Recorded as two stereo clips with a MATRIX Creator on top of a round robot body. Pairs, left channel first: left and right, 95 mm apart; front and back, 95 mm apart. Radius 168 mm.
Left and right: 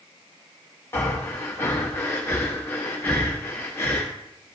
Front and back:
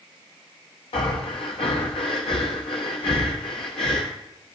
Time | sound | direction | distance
0.9 | breathing | 25° left | 0.6 m